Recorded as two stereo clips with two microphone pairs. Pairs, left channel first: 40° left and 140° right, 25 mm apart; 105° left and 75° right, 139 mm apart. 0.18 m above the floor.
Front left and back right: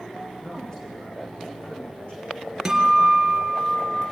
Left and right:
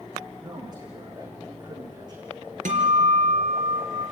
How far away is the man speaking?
About 9.5 m.